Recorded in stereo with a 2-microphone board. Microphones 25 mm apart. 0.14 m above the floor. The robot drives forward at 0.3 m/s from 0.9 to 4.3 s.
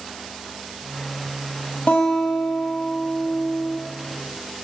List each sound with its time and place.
1.9 s a guitar: 70° left (ahead or behind), 1.7 m; by 3.8 s 60° left (ahead or behind), 1.8 m